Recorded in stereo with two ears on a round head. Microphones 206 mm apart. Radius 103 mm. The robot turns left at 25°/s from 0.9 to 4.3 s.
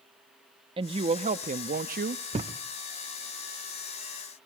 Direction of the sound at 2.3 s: 25° right (ahead or behind).